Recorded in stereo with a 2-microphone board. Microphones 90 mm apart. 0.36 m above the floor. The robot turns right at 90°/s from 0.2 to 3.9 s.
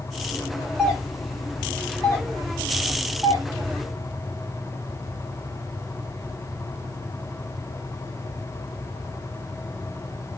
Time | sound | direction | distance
0.8 | a doorbell | centre (ahead or behind) | 2.5 m